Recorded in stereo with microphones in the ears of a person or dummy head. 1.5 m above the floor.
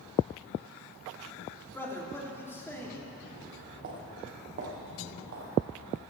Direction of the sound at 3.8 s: 45° right (ahead or behind).